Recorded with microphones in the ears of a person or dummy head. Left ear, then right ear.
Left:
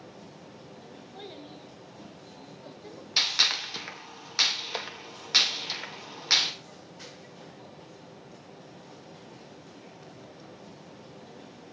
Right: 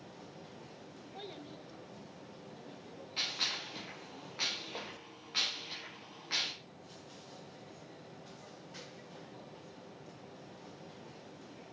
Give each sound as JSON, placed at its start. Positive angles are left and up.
{"t": 1.1, "sound": "a child speaking", "side_deg": -5, "distance_m": 0.9}
{"t": 3.2, "sound": "a gunshot", "side_deg": 65, "distance_m": 1.9}